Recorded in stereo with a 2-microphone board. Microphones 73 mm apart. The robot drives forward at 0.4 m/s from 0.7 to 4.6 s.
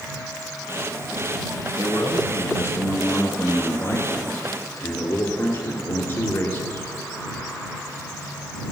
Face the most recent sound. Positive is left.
turn(degrees=30)  # may be behind; listen again after turning